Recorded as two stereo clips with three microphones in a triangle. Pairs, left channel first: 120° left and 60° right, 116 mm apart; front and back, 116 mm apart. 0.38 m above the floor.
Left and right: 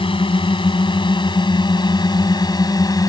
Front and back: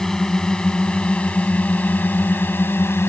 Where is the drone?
85° left; by 3.1 s 65° left.